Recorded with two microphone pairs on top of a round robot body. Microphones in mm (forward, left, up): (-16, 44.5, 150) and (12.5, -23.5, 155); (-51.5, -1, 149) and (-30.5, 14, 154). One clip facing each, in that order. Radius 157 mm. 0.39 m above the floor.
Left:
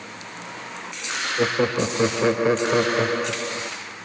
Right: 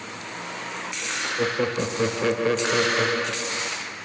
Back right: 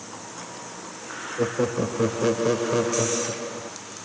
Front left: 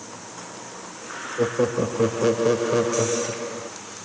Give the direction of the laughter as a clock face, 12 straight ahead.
7 o'clock.